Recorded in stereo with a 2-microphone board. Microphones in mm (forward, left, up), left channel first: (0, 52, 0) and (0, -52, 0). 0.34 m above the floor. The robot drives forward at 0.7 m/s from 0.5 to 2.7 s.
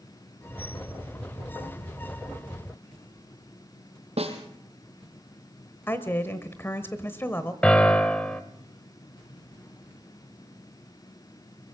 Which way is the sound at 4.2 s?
80° right.